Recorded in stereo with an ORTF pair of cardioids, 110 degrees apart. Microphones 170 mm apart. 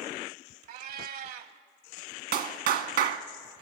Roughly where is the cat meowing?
Ahead right.